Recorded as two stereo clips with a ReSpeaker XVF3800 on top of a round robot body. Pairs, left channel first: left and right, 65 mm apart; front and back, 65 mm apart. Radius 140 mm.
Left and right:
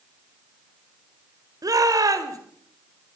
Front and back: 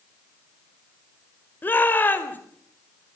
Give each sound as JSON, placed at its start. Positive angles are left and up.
{"t": 1.6, "sound": "a shout", "azimuth_deg": -60, "distance_m": 4.0}